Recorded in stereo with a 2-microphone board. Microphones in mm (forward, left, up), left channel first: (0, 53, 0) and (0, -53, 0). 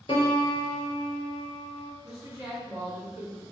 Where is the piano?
55° left (ahead or behind), 0.7 m.